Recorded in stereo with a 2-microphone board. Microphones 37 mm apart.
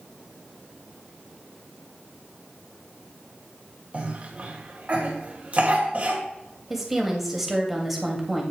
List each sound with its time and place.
3.9 s a cough: 40° right (ahead or behind), 1.9 m
6.7 s a woman speaking: 5° right (ahead or behind), 1.8 m